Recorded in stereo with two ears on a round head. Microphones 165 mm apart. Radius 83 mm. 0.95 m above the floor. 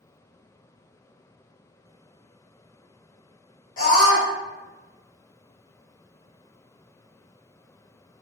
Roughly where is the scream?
Left.